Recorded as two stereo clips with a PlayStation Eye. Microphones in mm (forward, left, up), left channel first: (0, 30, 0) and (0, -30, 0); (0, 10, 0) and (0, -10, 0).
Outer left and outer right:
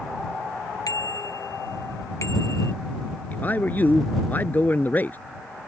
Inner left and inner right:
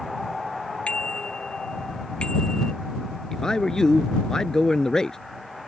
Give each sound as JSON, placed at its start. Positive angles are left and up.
{"t": 0.9, "sound": "a bicycle bell", "side_deg": 70}
{"t": 3.3, "sound": "a man speaking", "side_deg": 30}